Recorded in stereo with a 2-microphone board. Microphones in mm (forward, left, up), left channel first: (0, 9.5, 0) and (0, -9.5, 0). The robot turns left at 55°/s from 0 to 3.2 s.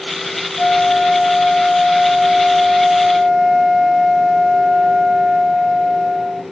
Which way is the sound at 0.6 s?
90° left.